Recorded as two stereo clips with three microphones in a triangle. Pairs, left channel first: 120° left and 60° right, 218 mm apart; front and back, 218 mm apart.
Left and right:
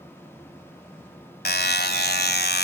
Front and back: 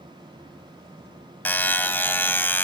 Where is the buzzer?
80° left, 1.4 m.